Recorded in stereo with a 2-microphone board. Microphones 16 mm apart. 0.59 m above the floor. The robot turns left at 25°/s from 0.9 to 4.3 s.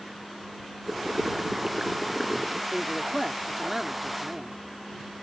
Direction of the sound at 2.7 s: 35° right.